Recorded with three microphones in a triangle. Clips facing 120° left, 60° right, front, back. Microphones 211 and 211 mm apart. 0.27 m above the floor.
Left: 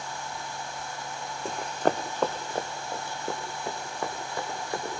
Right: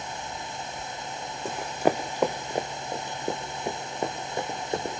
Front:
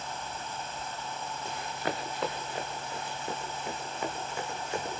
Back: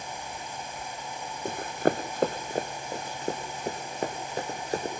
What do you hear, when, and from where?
1.4 s running footsteps: 150° right, 0.8 m; by 5.0 s 130° right, 3 m